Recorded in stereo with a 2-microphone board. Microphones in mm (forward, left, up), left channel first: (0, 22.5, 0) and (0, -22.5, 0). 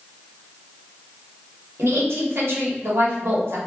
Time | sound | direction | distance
1.8 | a woman speaking | 70° right (ahead or behind) | 1.7 m